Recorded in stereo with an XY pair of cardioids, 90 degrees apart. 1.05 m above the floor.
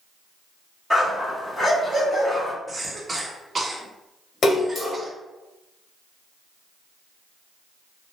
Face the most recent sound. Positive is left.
turn(degrees=55)